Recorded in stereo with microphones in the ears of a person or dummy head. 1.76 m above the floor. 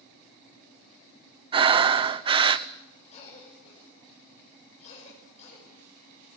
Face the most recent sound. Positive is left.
turn(degrees=35)  # may be behind; listen again after turning